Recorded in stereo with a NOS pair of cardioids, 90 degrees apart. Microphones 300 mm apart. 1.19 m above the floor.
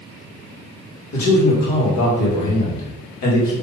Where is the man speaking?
65° left, 1.9 m.